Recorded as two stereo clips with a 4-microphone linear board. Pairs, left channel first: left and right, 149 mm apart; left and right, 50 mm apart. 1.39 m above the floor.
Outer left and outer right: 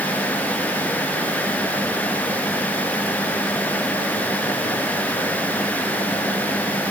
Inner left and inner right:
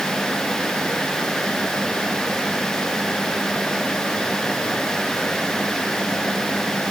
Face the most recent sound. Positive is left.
No sound to turn to.